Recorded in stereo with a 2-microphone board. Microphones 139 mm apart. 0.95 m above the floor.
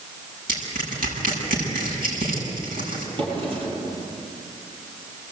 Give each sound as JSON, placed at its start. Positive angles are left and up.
{"t": 0.5, "sound": "crushing", "side_deg": -90, "distance_m": 7.5}
{"t": 3.2, "sound": "a drawer", "side_deg": -40, "distance_m": 9.0}